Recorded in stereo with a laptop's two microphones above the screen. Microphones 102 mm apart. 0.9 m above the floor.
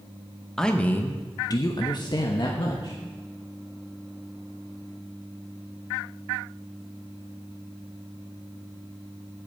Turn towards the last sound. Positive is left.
turn(degrees=45)  # may be behind; listen again after turning